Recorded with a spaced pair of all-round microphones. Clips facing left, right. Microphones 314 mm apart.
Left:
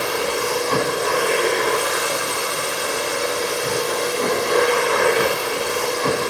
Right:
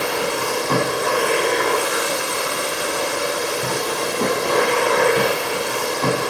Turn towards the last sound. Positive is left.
turn(degrees=-65)  # may be behind; listen again after turning